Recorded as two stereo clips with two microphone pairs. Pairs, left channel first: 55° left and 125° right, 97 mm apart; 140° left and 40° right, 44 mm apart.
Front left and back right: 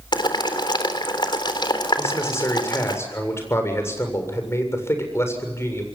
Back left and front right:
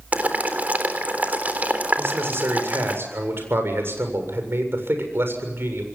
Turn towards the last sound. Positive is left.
turn(degrees=-10)